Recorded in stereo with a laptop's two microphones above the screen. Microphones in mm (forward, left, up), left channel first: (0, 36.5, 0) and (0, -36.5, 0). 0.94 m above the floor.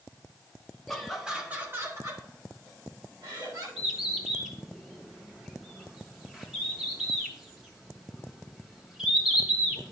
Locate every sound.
0.9 s laughter: 5° left (ahead or behind), 1.3 m; by 3.7 s 75° right (ahead or behind), 2.5 m
3.8 s a bird: 5° right (ahead or behind), 1.1 m